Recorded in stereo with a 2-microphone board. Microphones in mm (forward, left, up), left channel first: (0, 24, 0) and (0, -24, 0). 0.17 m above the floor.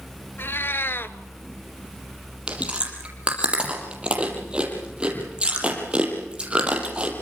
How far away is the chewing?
About 5.5 m.